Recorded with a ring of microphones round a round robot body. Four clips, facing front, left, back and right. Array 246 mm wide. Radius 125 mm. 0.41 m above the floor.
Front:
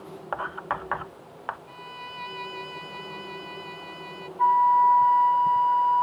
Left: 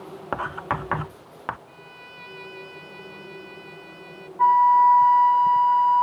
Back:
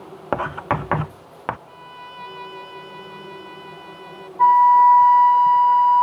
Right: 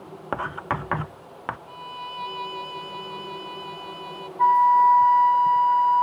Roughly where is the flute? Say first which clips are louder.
Left 1 dB, back 7 dB; behind.